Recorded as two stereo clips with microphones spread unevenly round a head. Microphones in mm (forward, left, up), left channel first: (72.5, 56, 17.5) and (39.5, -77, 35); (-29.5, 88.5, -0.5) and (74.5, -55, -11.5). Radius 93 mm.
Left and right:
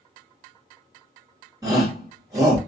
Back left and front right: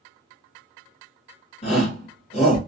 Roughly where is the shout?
Behind.